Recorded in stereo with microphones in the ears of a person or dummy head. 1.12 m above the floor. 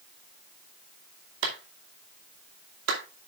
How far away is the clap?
About 2.5 m.